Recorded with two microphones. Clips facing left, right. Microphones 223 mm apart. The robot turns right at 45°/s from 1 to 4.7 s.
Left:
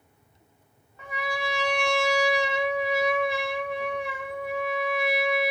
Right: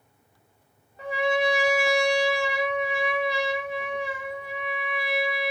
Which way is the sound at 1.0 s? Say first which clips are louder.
Right 8 dB; 40° right.